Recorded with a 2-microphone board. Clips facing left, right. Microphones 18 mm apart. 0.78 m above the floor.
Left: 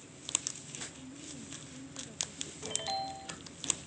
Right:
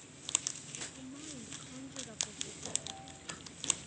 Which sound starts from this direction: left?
A ringtone, at 2.6 s.